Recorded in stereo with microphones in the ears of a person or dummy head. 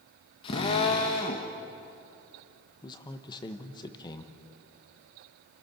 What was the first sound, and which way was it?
A drill, 20° left (ahead or behind).